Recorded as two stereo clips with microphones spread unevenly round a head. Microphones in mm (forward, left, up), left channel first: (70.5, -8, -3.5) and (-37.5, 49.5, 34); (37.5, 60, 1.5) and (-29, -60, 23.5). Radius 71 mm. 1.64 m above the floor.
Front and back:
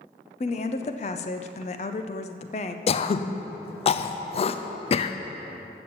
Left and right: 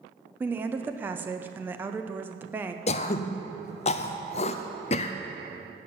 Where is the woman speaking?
65° right, 0.5 m.